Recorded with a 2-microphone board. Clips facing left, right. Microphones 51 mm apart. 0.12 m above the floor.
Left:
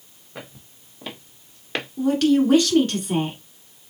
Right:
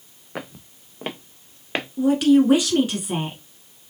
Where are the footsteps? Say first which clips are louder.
Right 6 dB; 75° right (ahead or behind), 1.1 m; by 1.9 s 15° right (ahead or behind), 1.2 m.